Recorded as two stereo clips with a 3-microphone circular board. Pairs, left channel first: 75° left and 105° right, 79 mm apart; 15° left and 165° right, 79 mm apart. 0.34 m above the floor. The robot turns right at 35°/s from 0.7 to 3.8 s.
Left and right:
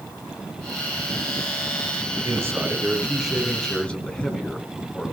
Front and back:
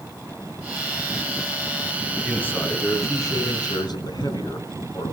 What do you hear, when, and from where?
2.2 s a man speaking: 55° right, 3 m; by 5.1 s straight ahead, 3 m